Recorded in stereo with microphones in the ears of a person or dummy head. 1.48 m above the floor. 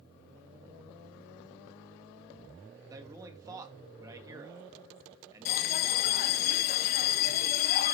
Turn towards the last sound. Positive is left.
turn(degrees=50)  # may be behind; listen again after turning